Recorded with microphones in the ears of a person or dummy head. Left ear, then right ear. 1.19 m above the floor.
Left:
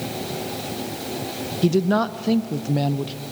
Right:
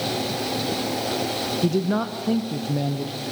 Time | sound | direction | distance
1.6 | a woman speaking | 15° left (ahead or behind) | 0.6 m